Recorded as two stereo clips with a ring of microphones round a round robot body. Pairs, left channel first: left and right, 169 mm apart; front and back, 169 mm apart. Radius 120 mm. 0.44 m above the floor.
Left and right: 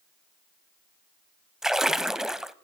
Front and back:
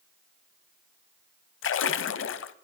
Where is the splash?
Straight ahead, 0.8 m.